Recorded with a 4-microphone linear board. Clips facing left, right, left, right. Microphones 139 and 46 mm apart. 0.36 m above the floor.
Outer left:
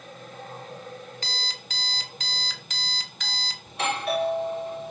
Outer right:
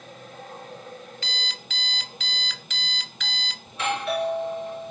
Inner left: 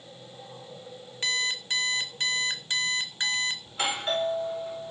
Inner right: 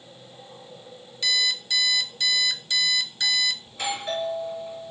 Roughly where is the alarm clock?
Left.